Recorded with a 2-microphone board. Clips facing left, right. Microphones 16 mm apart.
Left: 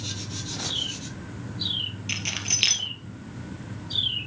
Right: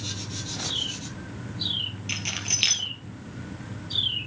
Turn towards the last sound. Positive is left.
turn(degrees=0)  # may be behind; listen again after turning